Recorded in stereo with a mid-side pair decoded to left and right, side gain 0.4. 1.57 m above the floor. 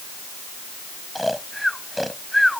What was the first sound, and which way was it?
Snoring, 5° left.